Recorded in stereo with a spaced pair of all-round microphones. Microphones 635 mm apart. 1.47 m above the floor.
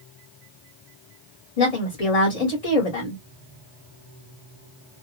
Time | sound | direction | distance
1.6 | a woman speaking | 60° left (ahead or behind) | 1.8 m